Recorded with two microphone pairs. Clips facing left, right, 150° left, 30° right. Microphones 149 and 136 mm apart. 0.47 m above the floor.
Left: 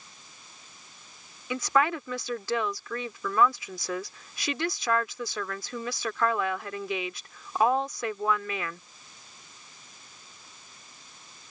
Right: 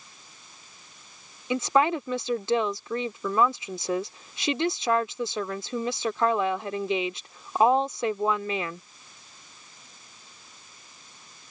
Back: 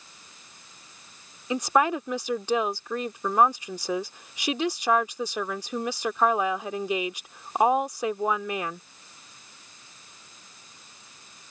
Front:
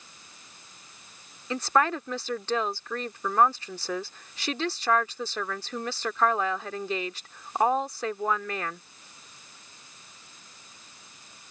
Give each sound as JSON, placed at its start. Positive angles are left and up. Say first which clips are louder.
{"t": 1.5, "sound": "a woman speaking", "louder": "right 3 dB, back 2 dB", "azimuth_deg": -140}